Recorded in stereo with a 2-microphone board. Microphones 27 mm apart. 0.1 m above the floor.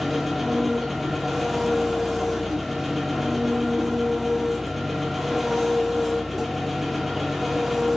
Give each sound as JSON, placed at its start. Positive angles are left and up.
{"t": 0.0, "sound": "an engine running", "side_deg": -5, "distance_m": 0.8}